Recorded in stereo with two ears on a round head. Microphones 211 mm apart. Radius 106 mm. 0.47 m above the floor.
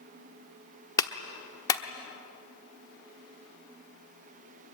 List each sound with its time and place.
1.0 s a clap: 15° left (ahead or behind), 1.0 m